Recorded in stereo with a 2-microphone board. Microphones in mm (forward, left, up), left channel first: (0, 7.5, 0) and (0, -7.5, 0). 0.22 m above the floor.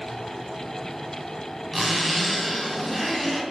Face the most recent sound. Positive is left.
turn(degrees=5)  # may be behind; listen again after turning